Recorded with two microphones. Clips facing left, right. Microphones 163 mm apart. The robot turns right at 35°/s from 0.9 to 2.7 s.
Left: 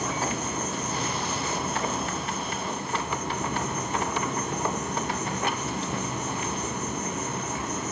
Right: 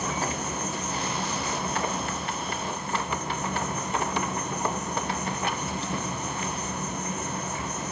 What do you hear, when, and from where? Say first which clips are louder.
0.0 s an insect: left 1 dB; 35° left, 1.6 m; by 7.9 s 95° left, 1.6 m